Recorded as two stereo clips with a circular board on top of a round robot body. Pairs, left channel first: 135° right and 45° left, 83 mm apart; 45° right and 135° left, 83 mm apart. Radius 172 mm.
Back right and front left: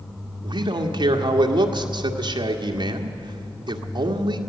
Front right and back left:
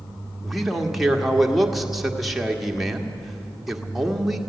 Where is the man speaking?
50° left, 1.8 m.